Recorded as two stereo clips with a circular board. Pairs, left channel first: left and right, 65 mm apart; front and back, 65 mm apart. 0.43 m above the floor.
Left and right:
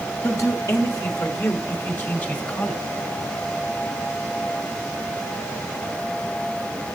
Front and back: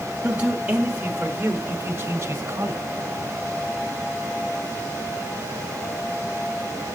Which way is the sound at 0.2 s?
110° left.